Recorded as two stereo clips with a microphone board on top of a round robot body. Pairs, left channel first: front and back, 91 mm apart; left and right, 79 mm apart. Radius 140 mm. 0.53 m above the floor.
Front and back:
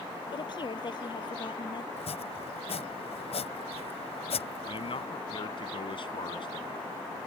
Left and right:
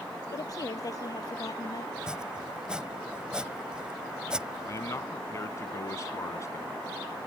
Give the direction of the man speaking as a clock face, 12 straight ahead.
11 o'clock.